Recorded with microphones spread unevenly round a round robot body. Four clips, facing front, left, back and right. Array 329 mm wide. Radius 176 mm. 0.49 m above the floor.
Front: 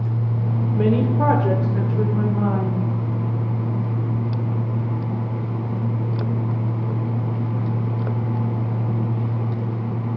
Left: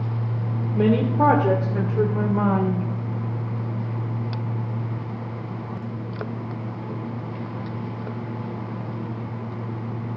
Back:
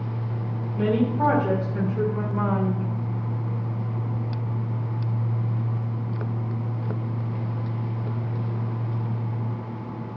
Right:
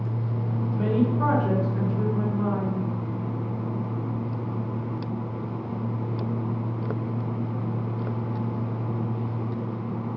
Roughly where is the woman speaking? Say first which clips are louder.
Left 5 dB, front 2 dB; ahead left.